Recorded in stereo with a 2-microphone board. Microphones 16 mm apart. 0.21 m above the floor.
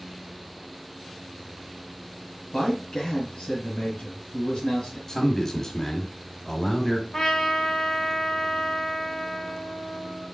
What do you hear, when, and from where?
2.5 s a man speaking: 55° left (ahead or behind), 2 m
5.1 s a man speaking: 25° left (ahead or behind), 1.2 m
7.1 s a trumpet: 45° left (ahead or behind), 1.8 m